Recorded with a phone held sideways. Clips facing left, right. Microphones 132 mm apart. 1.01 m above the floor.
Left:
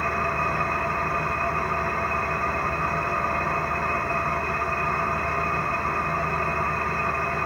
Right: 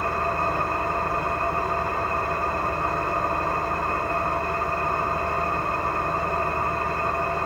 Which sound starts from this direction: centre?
An engine running, at 0.0 s.